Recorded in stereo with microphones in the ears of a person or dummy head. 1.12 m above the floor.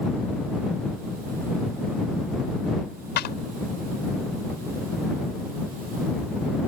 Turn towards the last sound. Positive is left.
turn(degrees=50)  # may be behind; listen again after turning